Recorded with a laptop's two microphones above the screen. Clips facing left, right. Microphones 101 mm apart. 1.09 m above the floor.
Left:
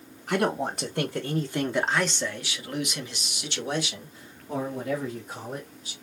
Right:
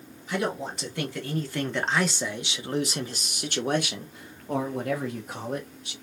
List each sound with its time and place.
0.3 s a man speaking: 55° left (ahead or behind), 1.0 m; by 5.9 s 70° right (ahead or behind), 2 m